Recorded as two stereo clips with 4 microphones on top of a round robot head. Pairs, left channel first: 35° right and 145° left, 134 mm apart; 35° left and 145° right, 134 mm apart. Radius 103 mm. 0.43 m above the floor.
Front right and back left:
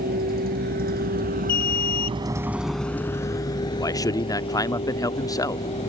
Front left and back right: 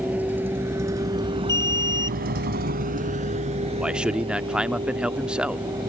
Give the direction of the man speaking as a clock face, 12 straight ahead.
2 o'clock.